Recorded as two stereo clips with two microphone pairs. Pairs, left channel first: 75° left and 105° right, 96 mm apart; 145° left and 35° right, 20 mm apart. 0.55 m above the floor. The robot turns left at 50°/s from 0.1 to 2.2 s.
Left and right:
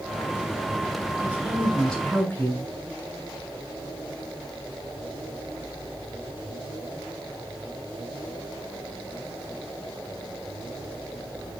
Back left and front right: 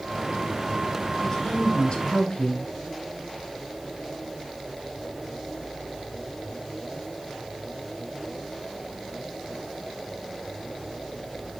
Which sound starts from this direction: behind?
A woman speaking, at 1.2 s.